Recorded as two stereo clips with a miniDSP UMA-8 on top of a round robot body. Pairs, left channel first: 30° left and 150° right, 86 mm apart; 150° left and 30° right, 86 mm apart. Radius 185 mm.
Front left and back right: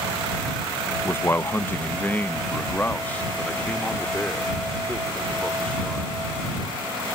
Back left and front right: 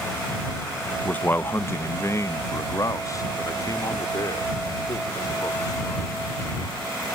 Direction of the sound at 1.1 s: 85° left.